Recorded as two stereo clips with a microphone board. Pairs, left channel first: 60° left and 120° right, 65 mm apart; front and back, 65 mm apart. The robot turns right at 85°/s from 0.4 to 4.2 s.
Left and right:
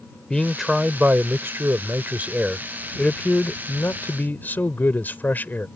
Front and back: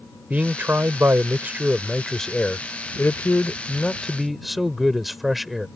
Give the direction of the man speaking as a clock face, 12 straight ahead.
8 o'clock.